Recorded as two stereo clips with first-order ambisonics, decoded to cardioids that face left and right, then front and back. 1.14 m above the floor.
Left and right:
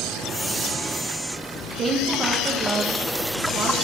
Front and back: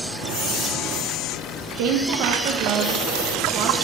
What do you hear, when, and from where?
1.8 s a woman speaking: 165° right, 1.0 m